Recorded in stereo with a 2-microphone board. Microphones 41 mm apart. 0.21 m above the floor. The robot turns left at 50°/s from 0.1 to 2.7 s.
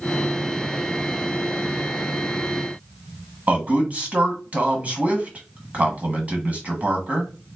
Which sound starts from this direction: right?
A man speaking, at 3.5 s.